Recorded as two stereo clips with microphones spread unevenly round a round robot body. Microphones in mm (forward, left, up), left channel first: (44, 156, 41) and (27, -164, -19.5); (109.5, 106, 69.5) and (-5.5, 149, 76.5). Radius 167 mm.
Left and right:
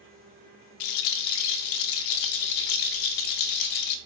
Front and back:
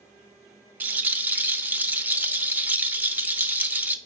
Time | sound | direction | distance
0.8 | a rattle | 85° left | 0.6 m